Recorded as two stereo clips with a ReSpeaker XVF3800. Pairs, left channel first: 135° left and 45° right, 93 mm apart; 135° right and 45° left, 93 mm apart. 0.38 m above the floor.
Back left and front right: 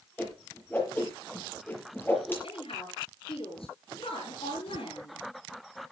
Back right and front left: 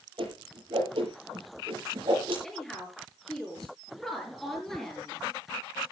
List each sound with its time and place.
0.2 s a whoosh: 65° left, 7 m
2.4 s a woman speaking: 140° left, 7.5 m